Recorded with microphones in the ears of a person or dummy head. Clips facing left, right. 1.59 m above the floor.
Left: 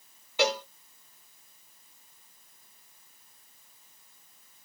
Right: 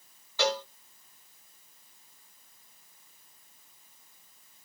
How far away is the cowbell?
About 1.3 m.